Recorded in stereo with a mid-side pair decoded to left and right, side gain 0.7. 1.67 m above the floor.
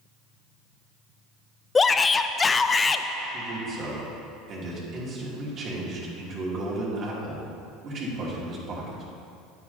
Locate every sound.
1.8 s a shout: 20° left, 0.5 m
3.3 s a man speaking: 45° right, 3 m